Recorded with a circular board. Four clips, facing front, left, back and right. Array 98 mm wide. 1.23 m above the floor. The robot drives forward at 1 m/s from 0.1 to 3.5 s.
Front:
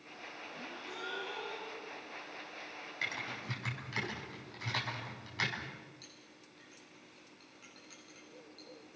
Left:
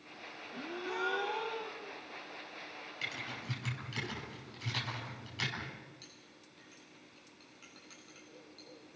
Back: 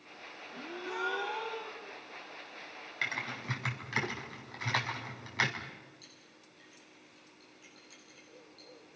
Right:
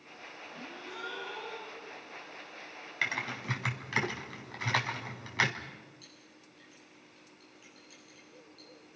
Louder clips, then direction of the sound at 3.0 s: Right 9 dB, back 4 dB; 105° right.